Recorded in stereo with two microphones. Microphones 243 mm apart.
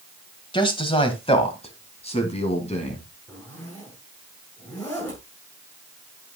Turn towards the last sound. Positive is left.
turn(degrees=5)  # may be behind; listen again after turning